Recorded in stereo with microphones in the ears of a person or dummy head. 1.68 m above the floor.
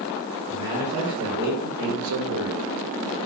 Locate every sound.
0.5 s a man speaking: 30° right (ahead or behind), 1.7 m; by 2.6 s 70° right (ahead or behind), 1.0 m